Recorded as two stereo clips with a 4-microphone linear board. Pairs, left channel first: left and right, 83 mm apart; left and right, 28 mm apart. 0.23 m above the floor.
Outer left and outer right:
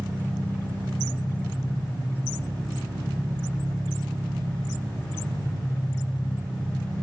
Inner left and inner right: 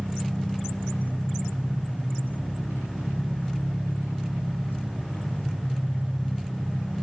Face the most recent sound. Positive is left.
turn(degrees=-70)  # may be behind; listen again after turning